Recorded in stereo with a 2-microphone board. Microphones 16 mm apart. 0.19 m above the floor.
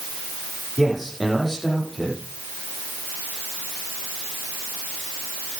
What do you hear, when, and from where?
0.8 s a man speaking: 10° right (ahead or behind), 9 m